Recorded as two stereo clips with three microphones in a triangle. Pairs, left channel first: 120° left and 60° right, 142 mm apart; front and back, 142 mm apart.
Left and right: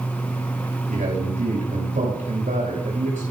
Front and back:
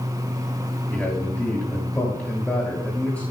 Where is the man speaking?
75° right, 7 m.